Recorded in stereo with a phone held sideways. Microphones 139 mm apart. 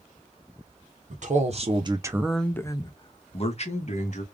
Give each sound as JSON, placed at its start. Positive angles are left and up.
{"t": 1.1, "sound": "a man speaking", "side_deg": -65, "distance_m": 1.0}